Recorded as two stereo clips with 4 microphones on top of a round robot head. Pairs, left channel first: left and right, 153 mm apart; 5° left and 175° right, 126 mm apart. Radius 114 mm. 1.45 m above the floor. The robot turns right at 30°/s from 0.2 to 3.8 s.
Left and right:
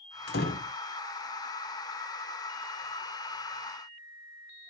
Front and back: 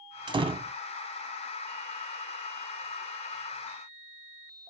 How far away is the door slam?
About 0.7 m.